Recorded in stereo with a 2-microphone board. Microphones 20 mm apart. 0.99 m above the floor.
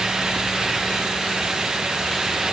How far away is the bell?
No bell in this recording.